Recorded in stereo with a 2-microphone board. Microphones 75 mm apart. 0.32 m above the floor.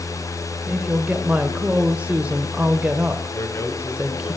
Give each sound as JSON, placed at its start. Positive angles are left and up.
{"t": 0.7, "sound": "a woman speaking", "side_deg": -15, "distance_m": 0.9}
{"t": 3.3, "sound": "a man speaking", "side_deg": 35, "distance_m": 1.5}